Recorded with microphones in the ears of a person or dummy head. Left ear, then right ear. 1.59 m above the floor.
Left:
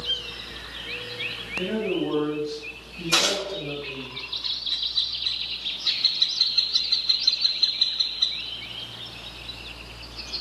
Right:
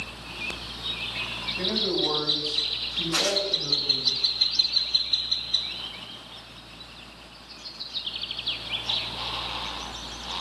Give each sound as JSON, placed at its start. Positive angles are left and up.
{"t": 1.6, "sound": "a man speaking", "side_deg": -30, "distance_m": 2.5}
{"t": 3.1, "sound": "a gunshot", "side_deg": 85, "distance_m": 3.0}